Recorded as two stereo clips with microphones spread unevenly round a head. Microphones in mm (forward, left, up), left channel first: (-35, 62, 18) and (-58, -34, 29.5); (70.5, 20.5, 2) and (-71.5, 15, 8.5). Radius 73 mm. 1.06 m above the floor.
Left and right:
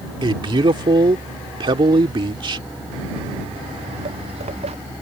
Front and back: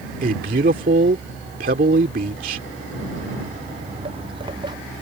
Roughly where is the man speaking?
Behind right.